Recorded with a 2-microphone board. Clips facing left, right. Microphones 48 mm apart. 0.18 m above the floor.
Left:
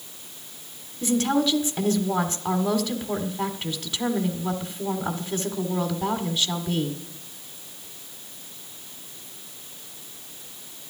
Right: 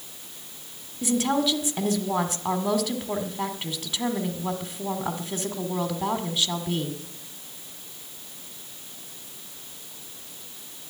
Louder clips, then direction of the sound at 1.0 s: Left 1 dB; 10° right (ahead or behind).